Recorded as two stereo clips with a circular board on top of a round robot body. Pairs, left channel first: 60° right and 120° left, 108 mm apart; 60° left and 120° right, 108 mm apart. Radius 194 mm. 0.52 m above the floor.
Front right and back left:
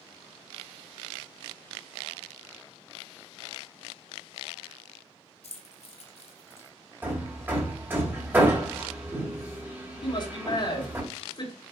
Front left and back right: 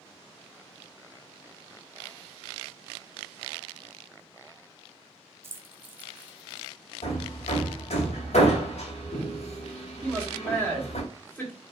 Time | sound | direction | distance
5.4 | keys jangling | 55° right | 1.6 m
7.0 | hammering | 50° left | 2 m
10.0 | a man speaking | 15° right | 3.5 m